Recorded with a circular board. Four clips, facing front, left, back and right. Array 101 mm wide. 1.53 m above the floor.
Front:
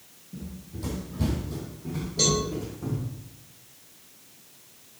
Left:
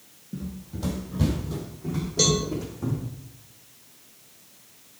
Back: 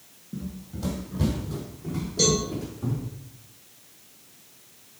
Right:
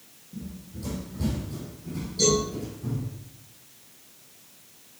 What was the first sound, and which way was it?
Running footsteps, 125° left.